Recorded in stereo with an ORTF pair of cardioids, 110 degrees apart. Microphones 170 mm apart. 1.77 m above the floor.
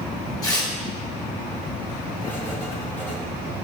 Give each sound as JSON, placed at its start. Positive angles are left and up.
{"t": 0.4, "sound": "tearing paper", "azimuth_deg": 20, "distance_m": 2.5}
{"t": 2.2, "sound": "writing", "azimuth_deg": 10, "distance_m": 1.6}